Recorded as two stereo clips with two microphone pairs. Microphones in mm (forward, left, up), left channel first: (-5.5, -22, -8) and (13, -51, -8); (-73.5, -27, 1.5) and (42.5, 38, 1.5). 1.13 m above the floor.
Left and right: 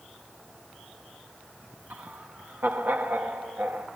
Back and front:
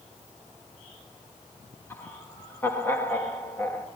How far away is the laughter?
About 1.5 m.